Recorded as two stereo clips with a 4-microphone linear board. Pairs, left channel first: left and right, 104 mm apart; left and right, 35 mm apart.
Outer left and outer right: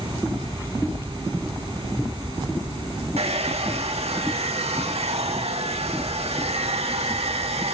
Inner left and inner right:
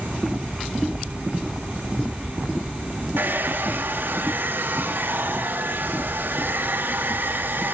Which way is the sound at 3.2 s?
75° right (ahead or behind).